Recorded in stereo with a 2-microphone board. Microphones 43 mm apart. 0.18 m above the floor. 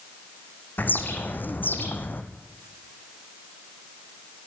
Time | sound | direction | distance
0.8 | a bird | 50° left (ahead or behind) | 2.5 m